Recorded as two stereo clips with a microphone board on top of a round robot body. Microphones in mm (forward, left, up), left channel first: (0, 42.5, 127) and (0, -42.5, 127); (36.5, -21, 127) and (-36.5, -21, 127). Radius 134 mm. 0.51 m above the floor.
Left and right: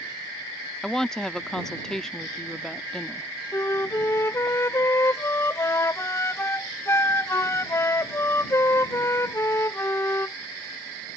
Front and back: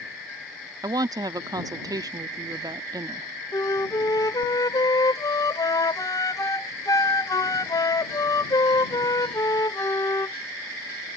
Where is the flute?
35° left.